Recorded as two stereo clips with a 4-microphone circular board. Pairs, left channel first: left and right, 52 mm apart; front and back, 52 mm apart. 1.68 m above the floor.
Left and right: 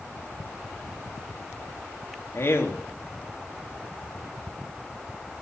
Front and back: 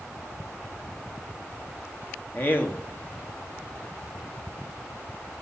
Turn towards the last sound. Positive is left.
turn(degrees=50)